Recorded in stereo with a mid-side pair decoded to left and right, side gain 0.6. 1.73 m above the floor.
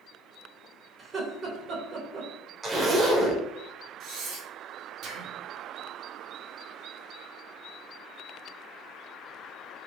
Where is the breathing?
60° right, 0.8 m.